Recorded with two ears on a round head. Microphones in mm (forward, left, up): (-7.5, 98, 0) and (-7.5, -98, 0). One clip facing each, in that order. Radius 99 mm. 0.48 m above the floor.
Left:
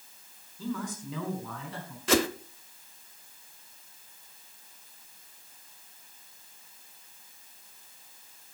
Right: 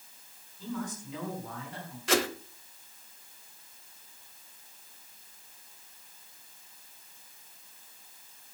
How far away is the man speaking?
About 6 m.